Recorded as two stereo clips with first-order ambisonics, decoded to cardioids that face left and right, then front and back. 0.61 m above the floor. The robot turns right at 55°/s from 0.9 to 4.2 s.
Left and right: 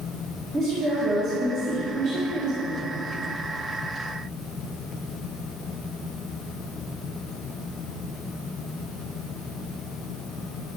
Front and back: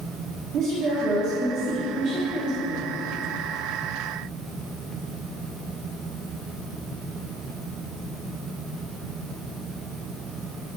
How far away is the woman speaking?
About 1.5 m.